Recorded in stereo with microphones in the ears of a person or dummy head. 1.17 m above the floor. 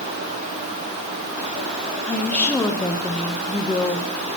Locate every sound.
2.1 s a woman speaking: 10° left (ahead or behind), 1.0 m